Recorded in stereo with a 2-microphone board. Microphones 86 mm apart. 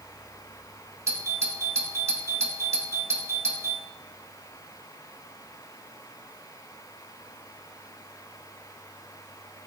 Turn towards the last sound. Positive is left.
turn(degrees=-35)  # may be behind; listen again after turning